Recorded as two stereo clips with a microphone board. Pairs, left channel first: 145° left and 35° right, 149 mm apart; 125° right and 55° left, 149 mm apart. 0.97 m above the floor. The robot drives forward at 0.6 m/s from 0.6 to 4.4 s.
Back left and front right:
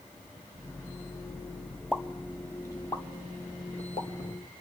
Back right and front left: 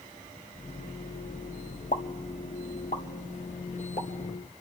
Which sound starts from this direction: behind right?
A pop, at 1.9 s.